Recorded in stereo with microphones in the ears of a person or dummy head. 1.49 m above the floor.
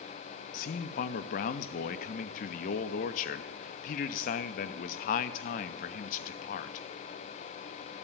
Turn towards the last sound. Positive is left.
turn(degrees=45)  # may be behind; listen again after turning